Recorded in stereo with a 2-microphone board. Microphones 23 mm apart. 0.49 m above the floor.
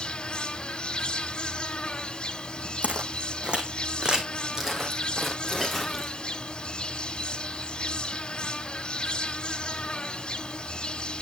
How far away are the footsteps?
About 2 m.